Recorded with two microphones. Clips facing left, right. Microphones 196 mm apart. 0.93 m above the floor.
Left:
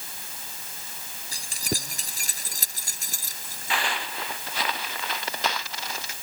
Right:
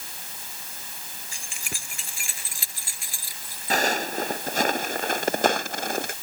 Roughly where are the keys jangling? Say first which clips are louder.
Left 11 dB; left.